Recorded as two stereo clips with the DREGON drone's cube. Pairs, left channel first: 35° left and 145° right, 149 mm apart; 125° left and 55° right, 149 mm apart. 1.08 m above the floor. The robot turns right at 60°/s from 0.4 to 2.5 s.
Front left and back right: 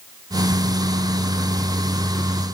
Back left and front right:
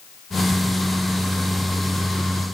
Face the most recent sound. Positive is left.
No sound to turn to.